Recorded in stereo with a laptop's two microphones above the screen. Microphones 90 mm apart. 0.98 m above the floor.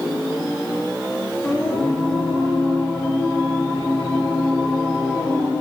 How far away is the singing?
About 2.5 m.